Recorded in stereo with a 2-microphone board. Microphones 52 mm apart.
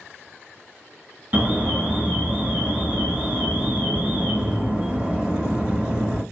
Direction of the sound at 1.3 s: 25° right (ahead or behind).